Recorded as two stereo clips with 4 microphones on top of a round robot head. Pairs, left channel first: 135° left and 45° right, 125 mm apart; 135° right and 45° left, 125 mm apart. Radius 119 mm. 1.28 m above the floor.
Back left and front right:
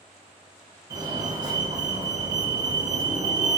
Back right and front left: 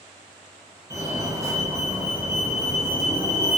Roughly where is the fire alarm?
Ahead.